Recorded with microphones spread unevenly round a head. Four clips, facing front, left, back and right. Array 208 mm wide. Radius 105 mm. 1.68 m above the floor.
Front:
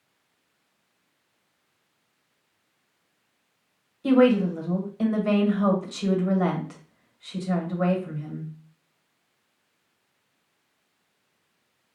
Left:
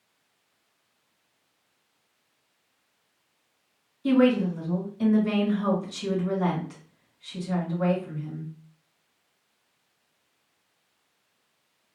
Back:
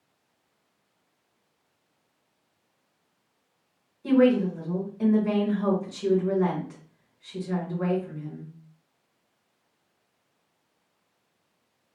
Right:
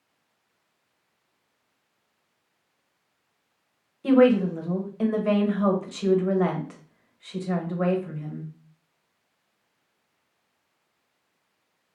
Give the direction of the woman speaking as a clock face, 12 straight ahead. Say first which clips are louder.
Right 3 dB, front 2 dB; 2 o'clock.